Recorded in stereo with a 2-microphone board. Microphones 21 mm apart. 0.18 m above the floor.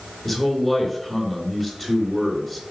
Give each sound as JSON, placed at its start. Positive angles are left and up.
{"t": 0.2, "sound": "a man speaking", "side_deg": 0, "distance_m": 2.5}